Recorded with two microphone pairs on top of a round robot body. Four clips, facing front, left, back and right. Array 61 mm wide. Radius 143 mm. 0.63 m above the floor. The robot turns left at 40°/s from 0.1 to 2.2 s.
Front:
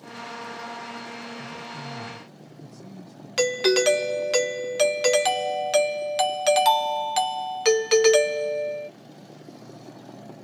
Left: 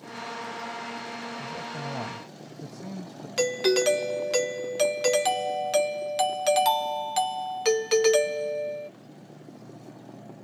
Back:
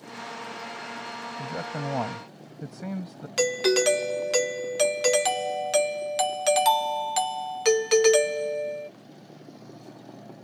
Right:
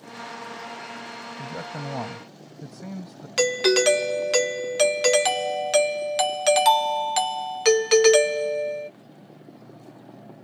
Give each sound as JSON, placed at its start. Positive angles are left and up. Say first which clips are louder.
{"t": 1.4, "sound": "a man speaking", "louder": "right 1 dB, back 4 dB", "azimuth_deg": -140}
{"t": 3.4, "sound": "a doorbell", "louder": "right 3 dB, front 2 dB", "azimuth_deg": -80}